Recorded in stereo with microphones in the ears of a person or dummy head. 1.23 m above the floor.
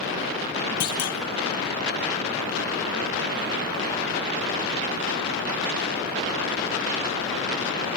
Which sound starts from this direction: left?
A clunk, at 0.8 s.